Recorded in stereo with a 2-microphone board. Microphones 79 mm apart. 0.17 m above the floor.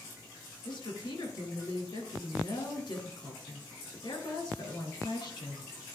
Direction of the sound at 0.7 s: 60° left (ahead or behind).